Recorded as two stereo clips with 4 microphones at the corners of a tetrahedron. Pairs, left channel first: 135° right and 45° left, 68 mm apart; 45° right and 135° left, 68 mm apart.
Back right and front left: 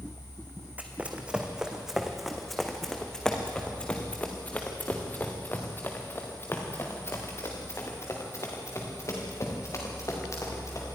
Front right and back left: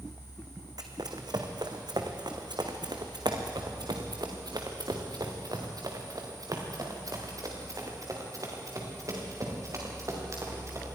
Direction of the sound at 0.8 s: 115° left.